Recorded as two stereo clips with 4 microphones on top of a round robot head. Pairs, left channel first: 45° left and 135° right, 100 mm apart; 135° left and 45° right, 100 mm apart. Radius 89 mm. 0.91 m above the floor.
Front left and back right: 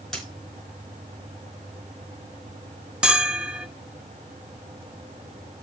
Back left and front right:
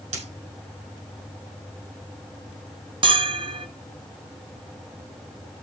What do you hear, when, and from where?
0.1 s a dropped coin: 45° right, 4 m
3.0 s a bell: 55° right, 1.3 m